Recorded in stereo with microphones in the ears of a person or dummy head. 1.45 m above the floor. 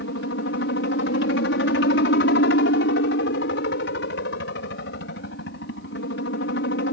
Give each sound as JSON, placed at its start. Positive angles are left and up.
{"t": 0.0, "sound": "a helicopter", "side_deg": 60}